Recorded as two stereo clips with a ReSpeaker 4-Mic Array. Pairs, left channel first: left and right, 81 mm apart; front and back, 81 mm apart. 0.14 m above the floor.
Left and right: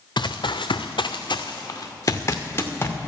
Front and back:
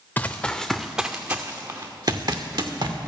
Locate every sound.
0.2 s running footsteps: 65° left, 0.8 m; by 3.0 s 155° left, 1.5 m